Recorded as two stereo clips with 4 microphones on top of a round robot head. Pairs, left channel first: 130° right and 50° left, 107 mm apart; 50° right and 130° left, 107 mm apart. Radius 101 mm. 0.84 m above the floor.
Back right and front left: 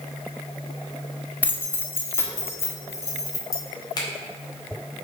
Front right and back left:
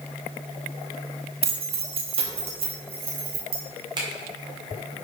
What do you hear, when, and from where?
1.4 s keys jangling: 155° left, 1.0 m; by 3.6 s 170° left, 2 m
4.0 s a finger snap: straight behind, 2 m